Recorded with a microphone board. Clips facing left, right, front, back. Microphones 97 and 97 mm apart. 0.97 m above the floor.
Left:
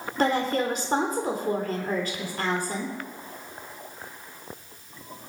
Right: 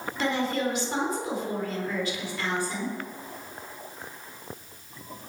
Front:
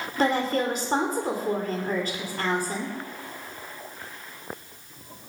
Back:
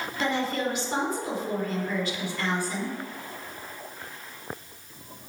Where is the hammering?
No hammering in this recording.